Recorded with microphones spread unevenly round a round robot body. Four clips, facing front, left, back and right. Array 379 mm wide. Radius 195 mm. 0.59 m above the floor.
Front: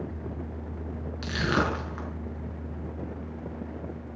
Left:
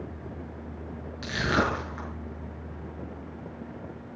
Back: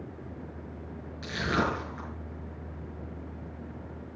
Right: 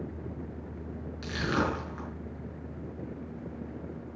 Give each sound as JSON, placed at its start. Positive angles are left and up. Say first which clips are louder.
{"t": 1.2, "sound": "crushing", "louder": "left 3 dB, front 2 dB", "azimuth_deg": 15, "distance_m": 5.5}